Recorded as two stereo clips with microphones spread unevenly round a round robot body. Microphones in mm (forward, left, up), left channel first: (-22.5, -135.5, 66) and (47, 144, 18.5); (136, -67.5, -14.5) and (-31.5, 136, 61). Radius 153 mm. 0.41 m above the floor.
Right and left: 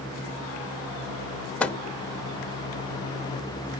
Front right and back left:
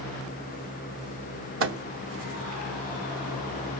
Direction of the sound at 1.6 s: 160° left.